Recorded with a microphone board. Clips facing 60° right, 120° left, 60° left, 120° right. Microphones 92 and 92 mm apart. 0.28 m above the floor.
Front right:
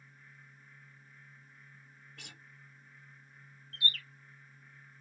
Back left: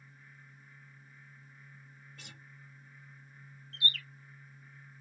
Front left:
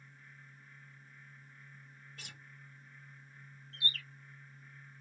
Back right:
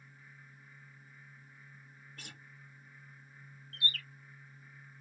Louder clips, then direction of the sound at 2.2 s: Even, back right 2 dB; 80° right.